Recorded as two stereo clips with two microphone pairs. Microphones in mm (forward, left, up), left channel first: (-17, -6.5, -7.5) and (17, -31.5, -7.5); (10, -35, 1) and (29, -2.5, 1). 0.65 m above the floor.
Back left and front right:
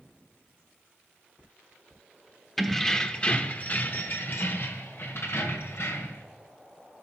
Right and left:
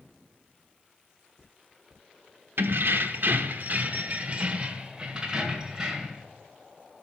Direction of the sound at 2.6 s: 55° left.